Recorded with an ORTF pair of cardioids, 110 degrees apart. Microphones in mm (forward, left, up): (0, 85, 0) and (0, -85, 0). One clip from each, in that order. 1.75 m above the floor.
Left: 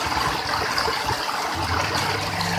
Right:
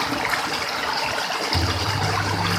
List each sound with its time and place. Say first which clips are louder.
1.5 s a microwave: left 1 dB; 60° right, 3 m